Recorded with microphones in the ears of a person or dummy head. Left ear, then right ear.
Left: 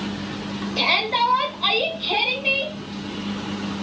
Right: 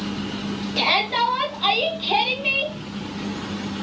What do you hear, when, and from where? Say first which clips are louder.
0.8 s a shout: even; 10° right (ahead or behind), 1.1 m